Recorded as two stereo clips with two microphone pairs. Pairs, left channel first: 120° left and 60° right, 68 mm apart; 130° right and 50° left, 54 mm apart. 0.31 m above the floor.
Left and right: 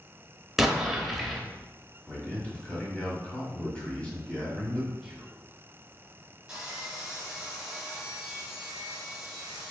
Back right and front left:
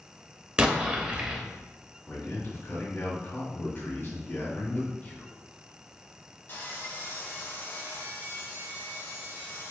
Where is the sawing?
135° right, 1.3 m.